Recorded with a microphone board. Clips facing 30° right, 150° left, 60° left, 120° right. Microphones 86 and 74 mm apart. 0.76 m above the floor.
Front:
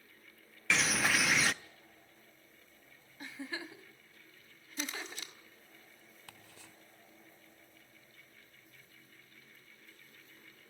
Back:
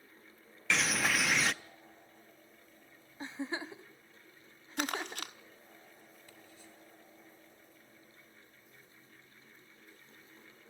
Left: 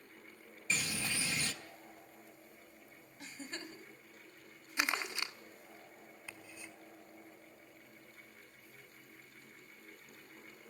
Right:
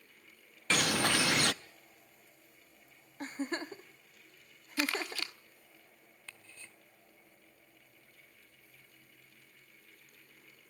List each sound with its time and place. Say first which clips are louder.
0.7 s a bird: even, right 9 dB; 120° right, 0.6 m
3.2 s a giggle: back 4 dB, right 10 dB; 155° right, 0.9 m
4.8 s crumpling: back 6 dB, right 2 dB; 130° left, 1.3 m
6.3 s ticking: front 2 dB, left 2 dB; 20° right, 1.6 m